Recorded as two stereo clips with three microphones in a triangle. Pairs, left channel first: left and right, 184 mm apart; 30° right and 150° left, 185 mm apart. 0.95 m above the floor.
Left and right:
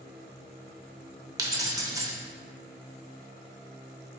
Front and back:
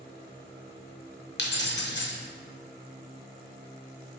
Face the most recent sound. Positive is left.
turn(degrees=-15)